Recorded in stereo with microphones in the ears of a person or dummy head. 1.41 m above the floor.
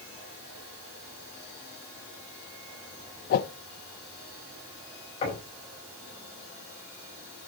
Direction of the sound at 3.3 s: 55° left (ahead or behind).